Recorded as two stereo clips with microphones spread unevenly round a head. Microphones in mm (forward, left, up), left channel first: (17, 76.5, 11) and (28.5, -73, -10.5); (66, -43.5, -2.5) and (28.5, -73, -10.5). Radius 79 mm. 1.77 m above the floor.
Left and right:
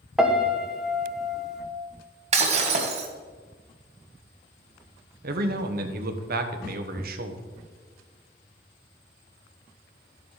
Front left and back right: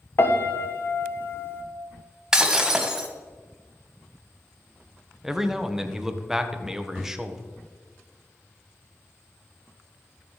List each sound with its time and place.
0.2 s a piano: 5° left, 1.4 m
2.3 s breaking glass: 60° right, 2.0 m
5.2 s a man speaking: 60° right, 1.5 m